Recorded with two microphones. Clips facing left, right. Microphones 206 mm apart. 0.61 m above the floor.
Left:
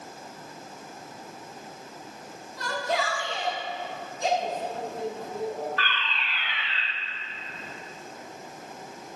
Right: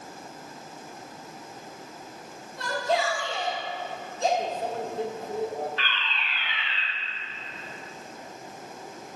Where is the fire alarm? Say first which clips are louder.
Left 2 dB; 20° right (ahead or behind), 1.5 m.